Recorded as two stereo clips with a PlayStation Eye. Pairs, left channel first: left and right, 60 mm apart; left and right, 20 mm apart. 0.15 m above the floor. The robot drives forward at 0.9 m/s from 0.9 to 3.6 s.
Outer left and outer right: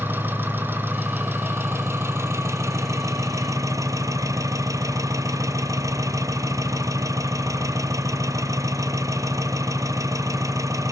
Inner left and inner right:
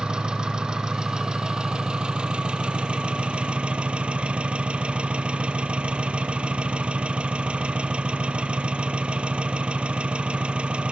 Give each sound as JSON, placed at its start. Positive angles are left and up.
{"t": 0.0, "sound": "an engine running", "side_deg": -35, "distance_m": 3.5}